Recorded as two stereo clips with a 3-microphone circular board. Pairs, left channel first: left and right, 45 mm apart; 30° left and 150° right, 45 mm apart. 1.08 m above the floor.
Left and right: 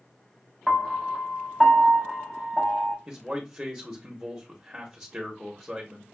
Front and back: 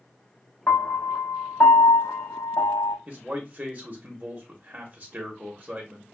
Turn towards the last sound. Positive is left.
turn(degrees=-155)